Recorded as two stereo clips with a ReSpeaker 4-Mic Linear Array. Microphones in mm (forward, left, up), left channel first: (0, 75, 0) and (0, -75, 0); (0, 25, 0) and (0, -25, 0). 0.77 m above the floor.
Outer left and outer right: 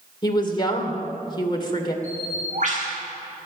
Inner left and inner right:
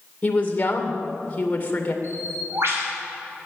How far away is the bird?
About 6 m.